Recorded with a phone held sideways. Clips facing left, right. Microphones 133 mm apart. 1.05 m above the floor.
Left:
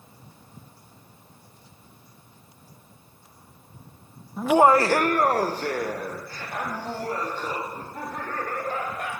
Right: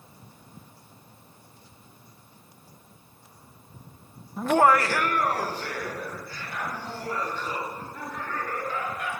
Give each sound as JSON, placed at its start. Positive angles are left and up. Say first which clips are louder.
{"t": 4.4, "sound": "laughter", "louder": "left 3 dB", "side_deg": 0, "distance_m": 0.6}